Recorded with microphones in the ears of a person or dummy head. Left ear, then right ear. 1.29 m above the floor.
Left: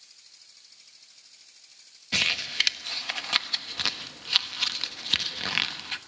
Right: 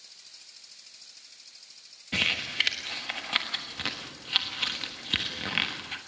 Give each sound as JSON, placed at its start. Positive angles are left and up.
{"t": 2.1, "sound": "crumpling", "side_deg": 30, "distance_m": 1.3}